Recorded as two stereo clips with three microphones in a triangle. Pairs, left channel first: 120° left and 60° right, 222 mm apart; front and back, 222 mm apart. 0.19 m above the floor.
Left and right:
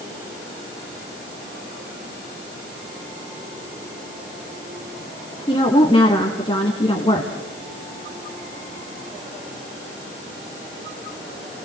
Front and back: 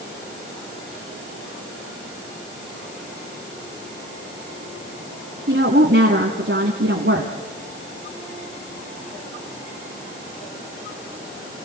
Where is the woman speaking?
Straight behind, 1.5 m.